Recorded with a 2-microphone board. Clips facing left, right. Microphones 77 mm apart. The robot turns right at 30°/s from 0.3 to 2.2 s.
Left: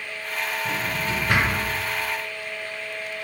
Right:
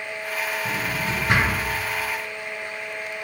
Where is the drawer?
35° right (ahead or behind), 1.7 m; by 1.6 s 5° right (ahead or behind), 1.7 m.